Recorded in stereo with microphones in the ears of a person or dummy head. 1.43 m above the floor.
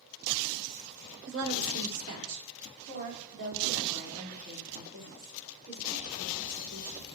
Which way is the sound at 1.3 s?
65° right (ahead or behind).